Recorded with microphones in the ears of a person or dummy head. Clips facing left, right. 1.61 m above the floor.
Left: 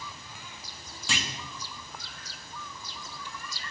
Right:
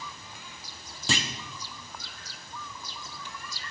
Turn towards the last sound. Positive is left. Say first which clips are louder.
# right 5 dB
turn(degrees=-45)  # may be behind; listen again after turning